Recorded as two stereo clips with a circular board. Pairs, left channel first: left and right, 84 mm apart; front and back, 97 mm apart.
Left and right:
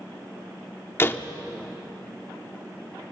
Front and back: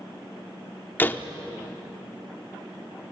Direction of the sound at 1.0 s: 55° left.